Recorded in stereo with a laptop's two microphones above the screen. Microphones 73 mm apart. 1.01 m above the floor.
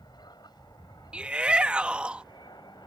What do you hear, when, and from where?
0.0 s an aircraft: 75° left (ahead or behind); by 2.9 s 80° left
1.1 s a shout: 15° right (ahead or behind)